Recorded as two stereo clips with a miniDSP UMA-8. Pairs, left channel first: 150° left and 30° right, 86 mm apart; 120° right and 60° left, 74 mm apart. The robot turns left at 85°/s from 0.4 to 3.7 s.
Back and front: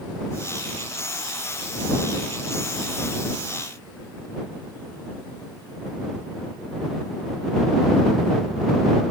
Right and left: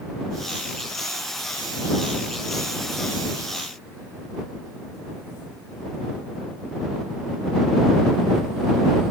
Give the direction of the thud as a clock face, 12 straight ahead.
I don't hear a thud.